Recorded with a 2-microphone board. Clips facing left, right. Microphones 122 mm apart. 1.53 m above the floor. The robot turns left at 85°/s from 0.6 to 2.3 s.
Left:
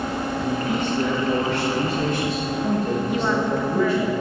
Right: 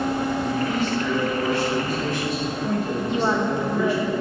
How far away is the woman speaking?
About 1.6 m.